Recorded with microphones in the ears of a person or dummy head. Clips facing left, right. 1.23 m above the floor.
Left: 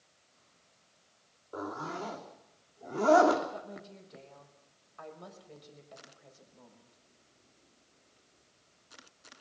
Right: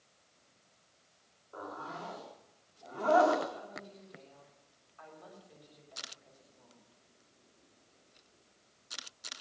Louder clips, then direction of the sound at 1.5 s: Left 6 dB; 40° left (ahead or behind).